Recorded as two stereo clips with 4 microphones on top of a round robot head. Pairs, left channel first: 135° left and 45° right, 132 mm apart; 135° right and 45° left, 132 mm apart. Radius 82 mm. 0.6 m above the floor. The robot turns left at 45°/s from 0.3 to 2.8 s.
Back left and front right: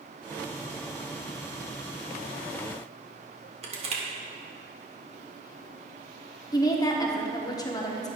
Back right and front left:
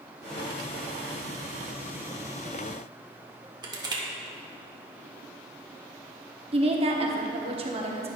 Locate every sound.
3.6 s crushing: 10° right, 1.9 m
6.5 s a woman speaking: 80° left, 1.2 m